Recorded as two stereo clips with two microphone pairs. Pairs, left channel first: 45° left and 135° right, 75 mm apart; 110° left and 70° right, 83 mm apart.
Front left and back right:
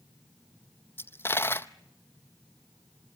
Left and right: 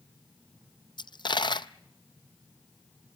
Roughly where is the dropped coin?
Left.